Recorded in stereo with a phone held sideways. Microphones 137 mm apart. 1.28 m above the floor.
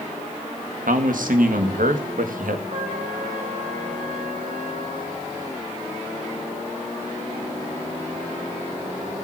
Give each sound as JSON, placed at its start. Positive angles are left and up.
{"t": 0.9, "sound": "a man speaking", "side_deg": -85, "distance_m": 1.8}
{"t": 2.7, "sound": "a trumpet", "side_deg": -80, "distance_m": 4.5}